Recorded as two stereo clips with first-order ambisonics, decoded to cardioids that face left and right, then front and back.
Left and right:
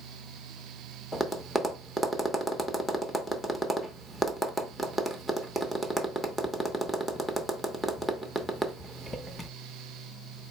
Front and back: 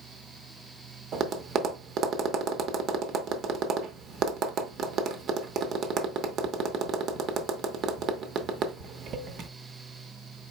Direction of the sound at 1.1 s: 175° left.